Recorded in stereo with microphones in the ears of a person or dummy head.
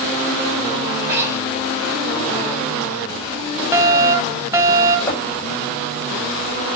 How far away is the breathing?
About 6.5 m.